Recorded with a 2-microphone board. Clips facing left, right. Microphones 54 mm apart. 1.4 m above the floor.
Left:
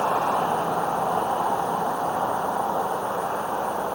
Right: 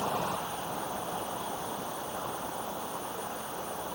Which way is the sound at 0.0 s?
65° left (ahead or behind).